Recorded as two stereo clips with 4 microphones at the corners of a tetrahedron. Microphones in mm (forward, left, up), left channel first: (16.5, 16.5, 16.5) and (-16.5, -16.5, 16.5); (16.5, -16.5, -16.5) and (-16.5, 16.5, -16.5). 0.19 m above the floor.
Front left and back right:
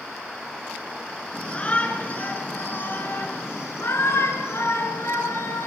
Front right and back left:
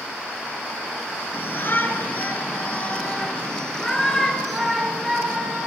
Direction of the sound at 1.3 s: 15° right.